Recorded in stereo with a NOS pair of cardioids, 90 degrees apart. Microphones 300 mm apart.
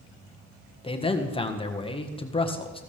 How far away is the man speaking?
About 1.5 m.